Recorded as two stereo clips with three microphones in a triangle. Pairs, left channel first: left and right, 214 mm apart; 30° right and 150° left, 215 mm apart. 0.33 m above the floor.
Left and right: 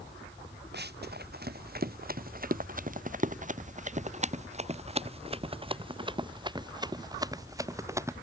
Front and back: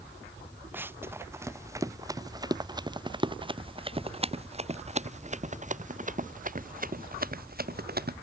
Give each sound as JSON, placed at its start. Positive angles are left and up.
{"t": 0.7, "sound": "running footsteps", "azimuth_deg": -130}